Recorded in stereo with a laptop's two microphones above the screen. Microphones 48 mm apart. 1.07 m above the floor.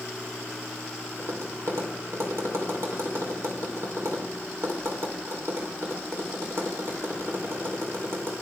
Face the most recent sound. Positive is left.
turn(degrees=-65)  # may be behind; listen again after turning